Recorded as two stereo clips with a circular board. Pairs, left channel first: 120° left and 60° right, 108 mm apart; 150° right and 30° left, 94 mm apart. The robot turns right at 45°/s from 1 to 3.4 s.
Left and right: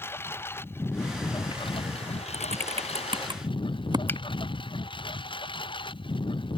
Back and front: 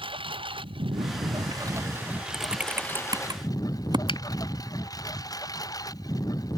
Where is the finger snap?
170° right.